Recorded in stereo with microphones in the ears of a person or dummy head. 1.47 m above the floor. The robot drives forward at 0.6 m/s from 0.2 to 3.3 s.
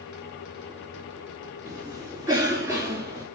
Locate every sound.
1.6 s a cough: 15° right (ahead or behind), 4.5 m